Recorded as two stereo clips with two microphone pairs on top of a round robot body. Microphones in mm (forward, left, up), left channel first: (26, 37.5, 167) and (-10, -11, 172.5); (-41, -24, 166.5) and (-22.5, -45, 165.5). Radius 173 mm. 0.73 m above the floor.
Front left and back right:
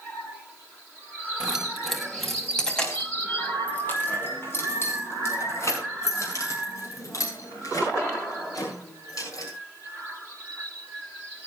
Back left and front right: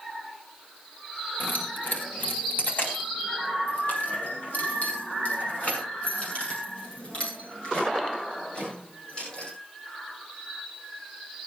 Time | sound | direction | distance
1.4 | keys jangling | 155° left | 4.5 m